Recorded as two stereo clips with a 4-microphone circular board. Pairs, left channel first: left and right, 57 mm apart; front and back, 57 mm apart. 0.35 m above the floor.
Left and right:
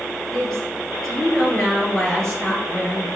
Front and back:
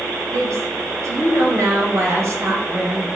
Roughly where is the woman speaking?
Behind.